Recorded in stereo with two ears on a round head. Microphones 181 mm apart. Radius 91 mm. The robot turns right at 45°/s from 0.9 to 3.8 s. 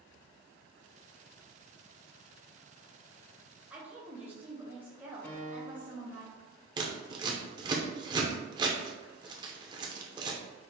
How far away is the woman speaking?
About 1.9 m.